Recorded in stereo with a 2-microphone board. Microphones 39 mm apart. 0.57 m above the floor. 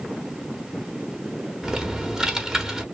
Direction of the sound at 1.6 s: 15° right (ahead or behind).